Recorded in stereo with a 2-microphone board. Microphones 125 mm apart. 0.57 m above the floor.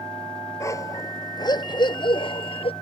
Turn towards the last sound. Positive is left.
turn(degrees=50)  # may be behind; listen again after turning